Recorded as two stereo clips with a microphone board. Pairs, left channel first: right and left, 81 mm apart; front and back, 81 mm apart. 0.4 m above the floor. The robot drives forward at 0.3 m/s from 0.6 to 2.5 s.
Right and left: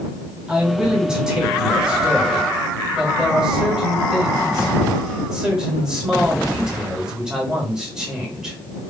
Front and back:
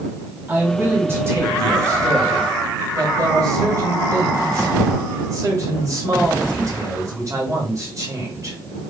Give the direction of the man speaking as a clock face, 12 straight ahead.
7 o'clock.